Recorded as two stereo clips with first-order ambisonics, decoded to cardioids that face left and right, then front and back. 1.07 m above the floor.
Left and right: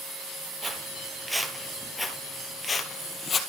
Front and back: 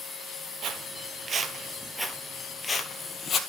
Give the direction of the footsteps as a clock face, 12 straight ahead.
5 o'clock.